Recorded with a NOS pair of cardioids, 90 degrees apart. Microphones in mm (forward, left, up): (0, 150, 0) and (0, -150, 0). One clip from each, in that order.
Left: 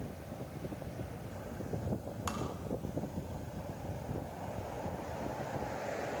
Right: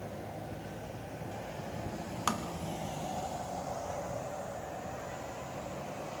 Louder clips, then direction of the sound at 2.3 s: Right 6 dB; 45° right.